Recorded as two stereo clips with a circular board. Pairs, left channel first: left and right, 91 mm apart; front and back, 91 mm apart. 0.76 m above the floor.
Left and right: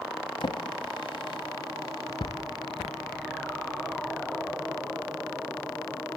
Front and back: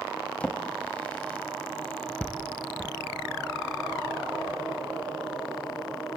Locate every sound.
0.4 s a drawer: 75° left, 1.2 m